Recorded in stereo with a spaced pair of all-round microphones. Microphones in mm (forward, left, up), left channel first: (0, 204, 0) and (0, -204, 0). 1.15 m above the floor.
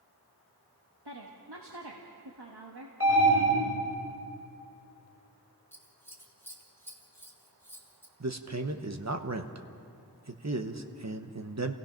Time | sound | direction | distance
1.1 | a woman speaking | 80° right | 1.6 m
3.0 | an alarm | 35° right (ahead or behind) | 6 m
5.7 | scissors | 5° left (ahead or behind) | 1.9 m
8.2 | a man speaking | 45° right (ahead or behind) | 1.0 m